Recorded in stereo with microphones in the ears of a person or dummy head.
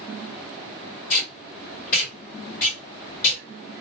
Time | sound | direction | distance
1.1 | tape being pulled | 45° left (ahead or behind) | 2 m